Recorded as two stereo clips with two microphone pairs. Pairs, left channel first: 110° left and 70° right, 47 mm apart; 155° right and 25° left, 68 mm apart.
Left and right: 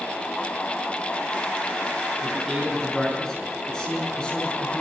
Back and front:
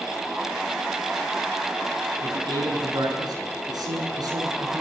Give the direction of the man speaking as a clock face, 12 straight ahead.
11 o'clock.